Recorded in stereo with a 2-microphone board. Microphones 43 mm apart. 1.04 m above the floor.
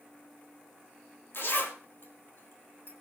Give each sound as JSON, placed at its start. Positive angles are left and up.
{"t": 1.3, "sound": "a zipper", "side_deg": 60, "distance_m": 3.0}